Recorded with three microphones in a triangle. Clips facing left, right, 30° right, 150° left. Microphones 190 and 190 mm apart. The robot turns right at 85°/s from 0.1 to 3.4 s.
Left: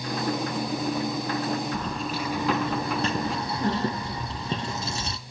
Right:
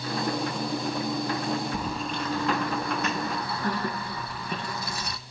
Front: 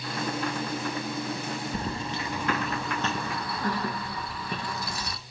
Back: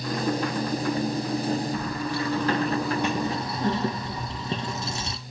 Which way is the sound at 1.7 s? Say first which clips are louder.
Left 1 dB, back 4 dB; 25° right.